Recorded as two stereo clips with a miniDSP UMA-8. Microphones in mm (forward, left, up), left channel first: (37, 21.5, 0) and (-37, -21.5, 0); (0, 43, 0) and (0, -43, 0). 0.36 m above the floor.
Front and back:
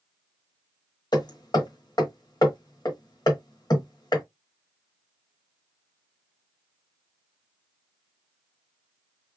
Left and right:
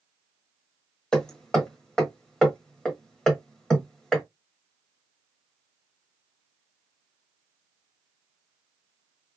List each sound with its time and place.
1.1 s hammering: 10° left, 1.2 m